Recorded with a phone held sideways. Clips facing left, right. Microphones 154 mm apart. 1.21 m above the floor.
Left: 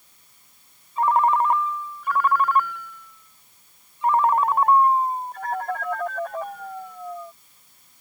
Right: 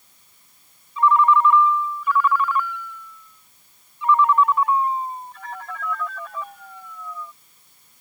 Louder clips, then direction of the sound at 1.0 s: Right 2 dB; 50° left (ahead or behind).